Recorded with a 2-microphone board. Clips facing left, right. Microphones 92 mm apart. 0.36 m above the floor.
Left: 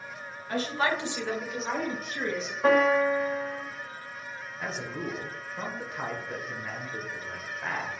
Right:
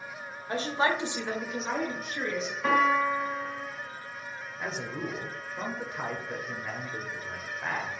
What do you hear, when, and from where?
0.5 s a woman speaking: 30° right (ahead or behind), 1.0 m; by 2.5 s 10° left (ahead or behind), 1.4 m
2.6 s a piano: 35° left (ahead or behind), 1.9 m
4.6 s a man speaking: 5° right (ahead or behind), 1.0 m